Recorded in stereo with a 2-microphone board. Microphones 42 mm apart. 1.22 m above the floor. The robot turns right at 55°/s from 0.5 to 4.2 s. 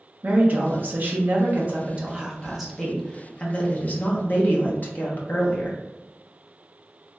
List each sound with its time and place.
0.2 s a woman speaking: 120° right, 0.8 m; by 5.8 s 85° left, 0.8 m